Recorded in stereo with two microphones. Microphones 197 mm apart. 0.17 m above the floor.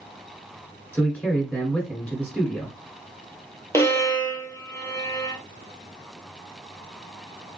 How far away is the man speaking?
About 1.6 m.